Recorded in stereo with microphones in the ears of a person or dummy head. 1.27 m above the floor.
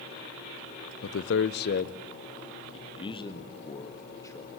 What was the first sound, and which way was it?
A man speaking, 70° left (ahead or behind).